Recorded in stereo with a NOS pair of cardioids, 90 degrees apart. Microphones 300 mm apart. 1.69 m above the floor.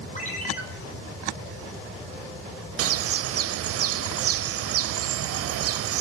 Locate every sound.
0.1 s a ringtone: 25° left, 4 m
2.8 s a bird: 50° right, 0.5 m